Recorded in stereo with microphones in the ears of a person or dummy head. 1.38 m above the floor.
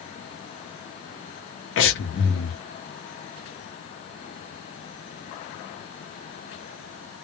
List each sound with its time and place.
1.8 s breathing: 60° left (ahead or behind), 0.7 m